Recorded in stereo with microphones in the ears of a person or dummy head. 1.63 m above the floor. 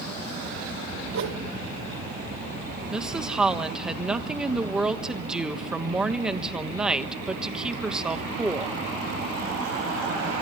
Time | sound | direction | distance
1.1 | a whoosh | 70° right (ahead or behind) | 2 m
2.9 | a woman speaking | 5° right (ahead or behind) | 1.5 m